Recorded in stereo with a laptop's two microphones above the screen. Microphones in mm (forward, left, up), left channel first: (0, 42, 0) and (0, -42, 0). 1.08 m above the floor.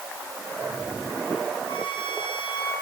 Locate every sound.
1.7 s a violin: 70° left (ahead or behind), 5 m